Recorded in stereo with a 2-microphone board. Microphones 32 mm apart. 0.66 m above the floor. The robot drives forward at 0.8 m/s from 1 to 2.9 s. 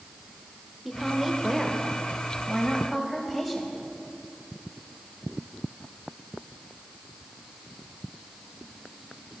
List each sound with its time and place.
0.8 s a woman speaking: 5° right (ahead or behind), 2.0 m